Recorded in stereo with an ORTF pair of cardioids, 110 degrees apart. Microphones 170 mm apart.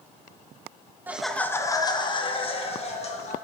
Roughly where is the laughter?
Ahead.